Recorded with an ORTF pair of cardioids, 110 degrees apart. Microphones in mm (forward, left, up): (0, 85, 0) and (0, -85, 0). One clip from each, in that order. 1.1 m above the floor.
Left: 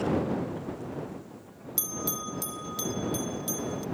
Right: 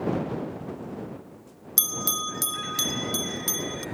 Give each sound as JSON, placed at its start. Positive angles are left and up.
{"t": 1.8, "sound": "a bell", "azimuth_deg": -45}